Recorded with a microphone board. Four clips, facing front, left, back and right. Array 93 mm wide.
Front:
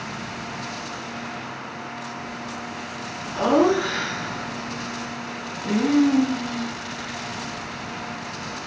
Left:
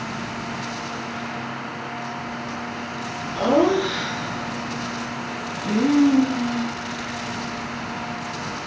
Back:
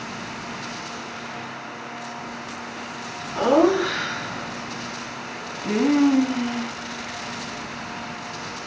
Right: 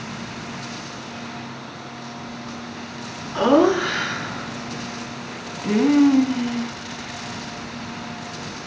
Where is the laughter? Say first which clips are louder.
Right 2 dB, back 1 dB; 95° right, 2.5 m; by 6.7 s 150° right, 1.7 m.